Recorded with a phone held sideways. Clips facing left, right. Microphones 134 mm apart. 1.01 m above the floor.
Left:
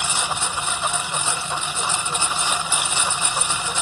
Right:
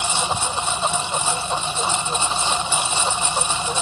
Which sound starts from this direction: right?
A lawn mower, at 0.0 s.